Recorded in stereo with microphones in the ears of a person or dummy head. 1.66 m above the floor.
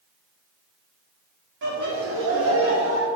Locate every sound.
1.6 s laughter: 75° right (ahead or behind), 2 m; by 3.1 s 65° right (ahead or behind), 2.5 m